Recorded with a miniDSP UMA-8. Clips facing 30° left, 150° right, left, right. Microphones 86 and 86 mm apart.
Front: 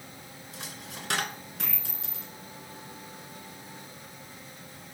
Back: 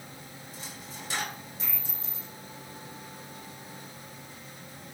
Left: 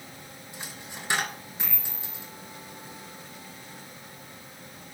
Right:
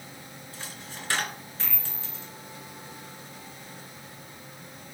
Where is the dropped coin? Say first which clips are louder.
Front 2 dB, left 1 dB; 20° left, 1.6 m.